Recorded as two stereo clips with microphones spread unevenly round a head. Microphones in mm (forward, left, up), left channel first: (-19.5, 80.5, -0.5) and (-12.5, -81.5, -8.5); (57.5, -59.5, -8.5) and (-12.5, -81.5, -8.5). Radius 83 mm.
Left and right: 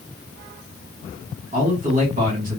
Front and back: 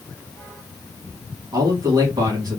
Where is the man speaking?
140° right, 3 m.